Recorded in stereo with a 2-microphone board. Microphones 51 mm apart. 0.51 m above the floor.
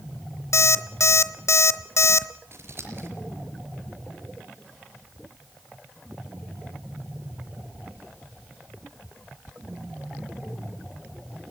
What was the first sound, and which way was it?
An alarm clock, 70° left (ahead or behind).